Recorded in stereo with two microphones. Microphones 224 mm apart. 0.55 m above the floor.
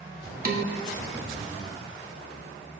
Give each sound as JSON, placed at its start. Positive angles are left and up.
{"t": 0.5, "sound": "dishes clattering", "side_deg": -40, "distance_m": 0.8}